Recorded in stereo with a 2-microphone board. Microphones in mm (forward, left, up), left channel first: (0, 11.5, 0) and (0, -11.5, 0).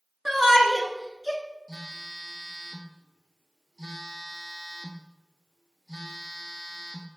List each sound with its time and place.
0.2 s a shout: 15° right (ahead or behind), 1.1 m
1.7 s a phone buzzing: 25° left (ahead or behind), 0.9 m